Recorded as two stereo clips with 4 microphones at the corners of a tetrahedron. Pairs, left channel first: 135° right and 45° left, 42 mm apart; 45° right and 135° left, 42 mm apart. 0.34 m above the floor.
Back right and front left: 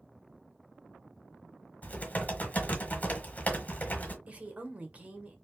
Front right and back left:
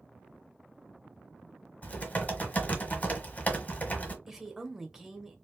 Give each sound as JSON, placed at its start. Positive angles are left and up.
{"t": 1.8, "sound": "typing on a keyboard", "azimuth_deg": -85, "distance_m": 1.2}
{"t": 4.3, "sound": "a woman speaking", "azimuth_deg": 60, "distance_m": 1.0}